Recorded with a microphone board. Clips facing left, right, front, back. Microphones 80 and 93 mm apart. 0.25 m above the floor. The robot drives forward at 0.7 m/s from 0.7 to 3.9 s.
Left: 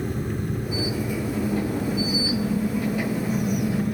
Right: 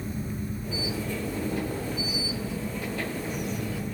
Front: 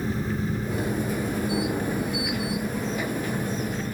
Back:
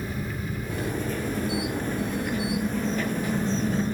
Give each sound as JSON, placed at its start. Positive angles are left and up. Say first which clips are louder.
{"t": 0.0, "sound": "an engine running", "louder": "left 5 dB, front 5 dB", "azimuth_deg": 60, "distance_m": 3.0}